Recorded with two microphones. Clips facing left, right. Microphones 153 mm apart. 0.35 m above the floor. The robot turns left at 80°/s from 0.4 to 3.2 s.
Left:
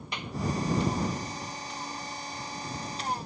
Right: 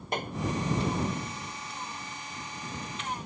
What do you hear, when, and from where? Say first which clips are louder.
0.1 s a clap: right 6 dB; 50° right (ahead or behind)